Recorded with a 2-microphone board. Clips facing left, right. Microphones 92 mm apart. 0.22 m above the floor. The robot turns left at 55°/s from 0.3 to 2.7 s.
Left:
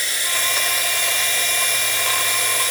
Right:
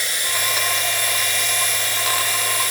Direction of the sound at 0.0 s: 160° right.